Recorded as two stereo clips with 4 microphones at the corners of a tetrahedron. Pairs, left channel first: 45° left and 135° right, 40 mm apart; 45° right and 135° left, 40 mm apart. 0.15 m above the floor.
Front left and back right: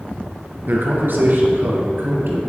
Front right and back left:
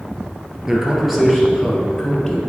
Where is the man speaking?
145° right, 2 m; by 2.4 s 125° right, 2.5 m.